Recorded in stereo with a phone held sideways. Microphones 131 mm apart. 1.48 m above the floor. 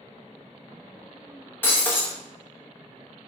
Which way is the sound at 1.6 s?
15° left (ahead or behind).